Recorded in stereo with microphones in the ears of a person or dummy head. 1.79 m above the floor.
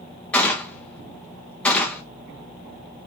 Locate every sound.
0.3 s a gunshot: 10° left (ahead or behind), 0.6 m